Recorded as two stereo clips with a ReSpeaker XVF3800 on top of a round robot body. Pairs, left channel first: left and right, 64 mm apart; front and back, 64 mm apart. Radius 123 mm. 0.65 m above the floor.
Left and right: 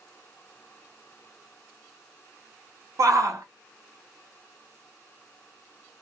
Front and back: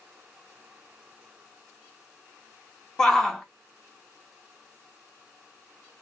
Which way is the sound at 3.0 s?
80° right.